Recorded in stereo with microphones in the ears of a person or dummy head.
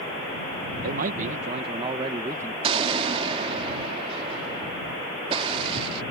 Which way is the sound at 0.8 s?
60° right (ahead or behind).